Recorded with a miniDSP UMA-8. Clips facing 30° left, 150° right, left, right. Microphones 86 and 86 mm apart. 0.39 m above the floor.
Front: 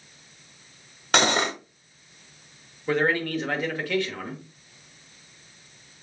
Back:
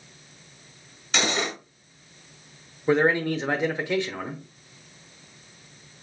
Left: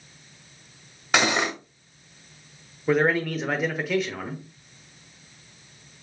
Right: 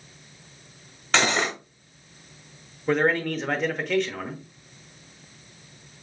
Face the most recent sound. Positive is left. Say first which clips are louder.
# back 3 dB, left 1 dB
turn(degrees=170)